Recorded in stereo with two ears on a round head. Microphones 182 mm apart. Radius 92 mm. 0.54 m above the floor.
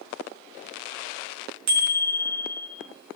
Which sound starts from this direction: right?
A bicycle bell, at 1.7 s.